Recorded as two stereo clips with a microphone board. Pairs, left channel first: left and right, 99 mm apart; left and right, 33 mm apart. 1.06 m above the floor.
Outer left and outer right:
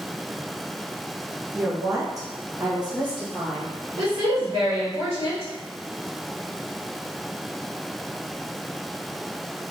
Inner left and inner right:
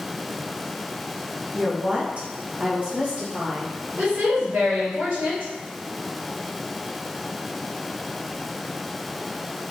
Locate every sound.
1.5 s a woman speaking: 20° right (ahead or behind), 0.5 m; by 3.7 s 45° right (ahead or behind), 1.6 m
4.0 s a woman speaking: 80° right, 1.4 m